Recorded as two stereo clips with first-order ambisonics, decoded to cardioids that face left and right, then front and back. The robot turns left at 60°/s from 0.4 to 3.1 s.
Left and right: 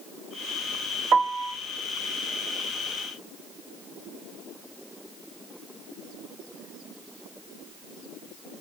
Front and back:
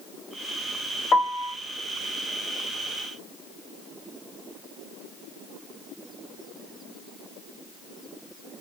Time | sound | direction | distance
1.1 | a piano | 40° right | 0.8 m